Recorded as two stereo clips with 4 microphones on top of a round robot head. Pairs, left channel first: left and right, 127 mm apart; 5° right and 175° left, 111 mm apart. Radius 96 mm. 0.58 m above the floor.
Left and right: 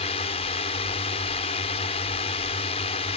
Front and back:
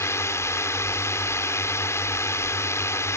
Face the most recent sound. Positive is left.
turn(degrees=55)